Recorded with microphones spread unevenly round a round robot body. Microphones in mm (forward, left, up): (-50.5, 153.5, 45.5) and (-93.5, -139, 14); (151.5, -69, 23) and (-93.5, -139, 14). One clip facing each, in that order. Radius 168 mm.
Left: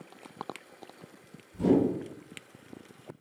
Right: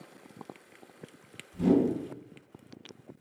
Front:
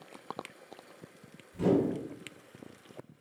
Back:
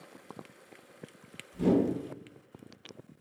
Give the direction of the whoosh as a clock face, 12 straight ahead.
2 o'clock.